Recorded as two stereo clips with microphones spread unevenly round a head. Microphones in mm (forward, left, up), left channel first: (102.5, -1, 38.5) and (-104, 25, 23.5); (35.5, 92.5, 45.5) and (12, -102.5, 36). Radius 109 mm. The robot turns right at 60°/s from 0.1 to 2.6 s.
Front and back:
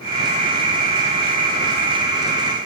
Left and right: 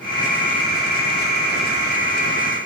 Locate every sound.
Only background noise.